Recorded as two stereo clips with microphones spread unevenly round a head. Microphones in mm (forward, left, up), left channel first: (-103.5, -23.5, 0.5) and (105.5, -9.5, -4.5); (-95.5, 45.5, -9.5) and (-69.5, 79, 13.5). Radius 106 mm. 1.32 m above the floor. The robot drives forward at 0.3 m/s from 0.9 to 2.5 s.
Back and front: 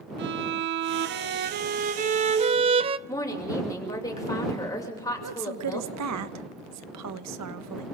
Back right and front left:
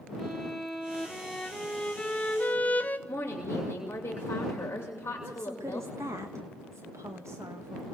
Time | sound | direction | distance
0.2 | a violin | 15° right | 1.0 m
3.1 | a woman speaking | 100° right | 6 m
5.2 | a woman speaking | straight ahead | 1.4 m